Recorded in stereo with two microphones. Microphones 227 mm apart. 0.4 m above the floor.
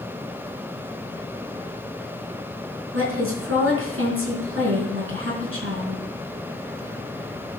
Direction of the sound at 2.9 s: 70° right (ahead or behind).